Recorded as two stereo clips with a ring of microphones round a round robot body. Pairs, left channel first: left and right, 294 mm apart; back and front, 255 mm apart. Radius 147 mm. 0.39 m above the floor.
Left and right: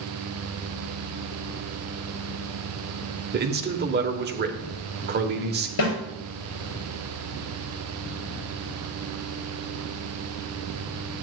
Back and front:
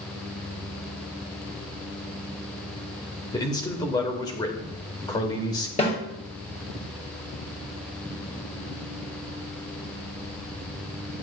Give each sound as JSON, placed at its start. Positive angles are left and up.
{"t": 3.3, "sound": "a man speaking", "azimuth_deg": -115, "distance_m": 1.1}
{"t": 5.8, "sound": "a snare drum", "azimuth_deg": 115, "distance_m": 4.5}